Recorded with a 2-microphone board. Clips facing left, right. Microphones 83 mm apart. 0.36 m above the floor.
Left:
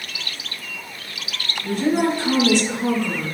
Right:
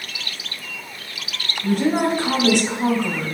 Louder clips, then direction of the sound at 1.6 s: Right 1 dB; 70° right (ahead or behind).